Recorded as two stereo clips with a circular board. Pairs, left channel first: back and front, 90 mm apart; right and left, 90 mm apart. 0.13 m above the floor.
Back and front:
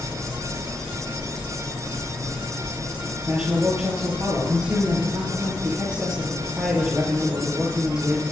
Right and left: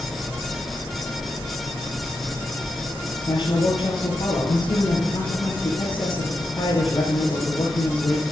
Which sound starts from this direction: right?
A man speaking, at 3.3 s.